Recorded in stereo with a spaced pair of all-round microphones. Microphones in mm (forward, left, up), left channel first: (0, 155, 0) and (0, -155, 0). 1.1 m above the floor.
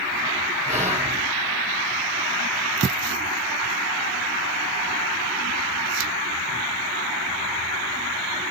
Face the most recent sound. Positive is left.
turn(degrees=-30)  # may be behind; listen again after turning